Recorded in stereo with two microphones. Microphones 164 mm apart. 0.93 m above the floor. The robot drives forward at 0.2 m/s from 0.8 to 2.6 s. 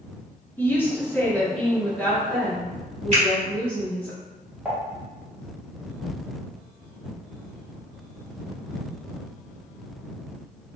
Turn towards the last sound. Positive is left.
turn(degrees=-10)  # may be behind; listen again after turning